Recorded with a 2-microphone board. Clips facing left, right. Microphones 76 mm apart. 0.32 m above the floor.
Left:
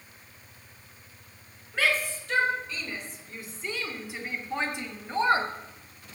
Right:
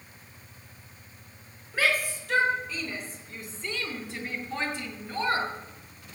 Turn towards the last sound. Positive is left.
turn(degrees=30)  # may be behind; listen again after turning